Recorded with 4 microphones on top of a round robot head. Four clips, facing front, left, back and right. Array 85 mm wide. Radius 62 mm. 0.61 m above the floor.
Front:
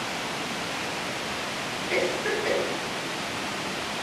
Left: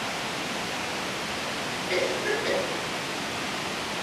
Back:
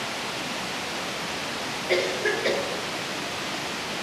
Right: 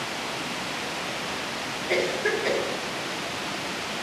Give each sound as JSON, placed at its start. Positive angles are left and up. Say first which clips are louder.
{"t": 1.9, "sound": "a cough", "louder": "right 2 dB, back 2 dB", "azimuth_deg": -155, "distance_m": 3.0}